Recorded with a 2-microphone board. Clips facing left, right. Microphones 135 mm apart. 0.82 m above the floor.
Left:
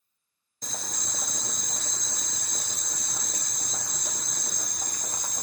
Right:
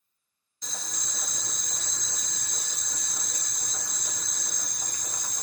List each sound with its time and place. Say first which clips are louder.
0.6 s boiling: left 3 dB; 55° left (ahead or behind), 0.6 m